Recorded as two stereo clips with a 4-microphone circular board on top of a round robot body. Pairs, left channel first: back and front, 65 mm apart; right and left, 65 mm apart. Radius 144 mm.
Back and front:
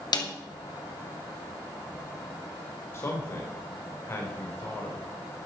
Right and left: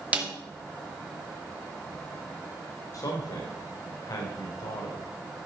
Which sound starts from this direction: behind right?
A man speaking, at 2.9 s.